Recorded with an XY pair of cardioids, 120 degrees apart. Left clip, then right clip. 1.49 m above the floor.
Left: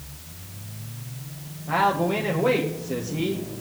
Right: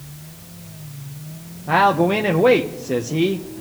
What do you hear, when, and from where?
1.7 s a man speaking: 50° right, 0.9 m